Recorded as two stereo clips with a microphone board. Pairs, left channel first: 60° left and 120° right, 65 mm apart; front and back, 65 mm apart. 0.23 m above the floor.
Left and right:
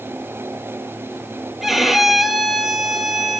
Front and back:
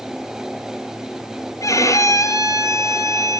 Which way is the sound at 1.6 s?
35° right.